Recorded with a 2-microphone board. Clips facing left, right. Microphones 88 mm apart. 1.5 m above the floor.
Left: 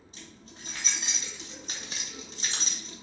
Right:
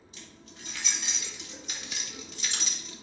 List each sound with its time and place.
0.1 s keys jangling: 35° left (ahead or behind), 3 m